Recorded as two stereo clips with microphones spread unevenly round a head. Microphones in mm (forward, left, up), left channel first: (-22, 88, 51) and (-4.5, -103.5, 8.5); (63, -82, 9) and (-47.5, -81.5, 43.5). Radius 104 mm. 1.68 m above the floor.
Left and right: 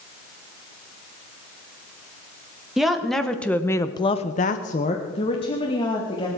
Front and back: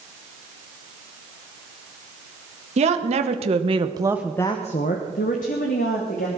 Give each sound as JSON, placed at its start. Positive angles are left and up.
{"t": 2.8, "sound": "a woman speaking", "azimuth_deg": -175, "distance_m": 2.0}